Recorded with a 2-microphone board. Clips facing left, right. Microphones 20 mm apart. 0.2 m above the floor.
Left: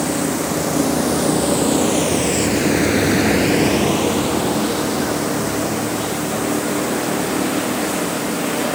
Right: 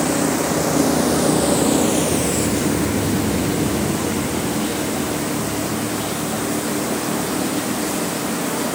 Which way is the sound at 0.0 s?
15° right (ahead or behind).